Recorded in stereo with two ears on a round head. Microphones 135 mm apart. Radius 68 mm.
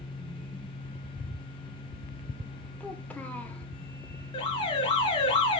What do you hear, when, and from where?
2.8 s a child speaking: 10° left (ahead or behind), 0.9 m
4.3 s an alarm: 40° left (ahead or behind), 2.5 m